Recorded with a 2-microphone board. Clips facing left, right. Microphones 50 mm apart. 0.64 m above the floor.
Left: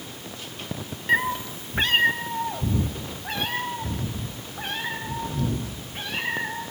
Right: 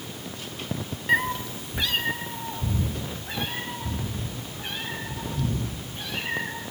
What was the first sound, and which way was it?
A cat meowing, centre (ahead or behind).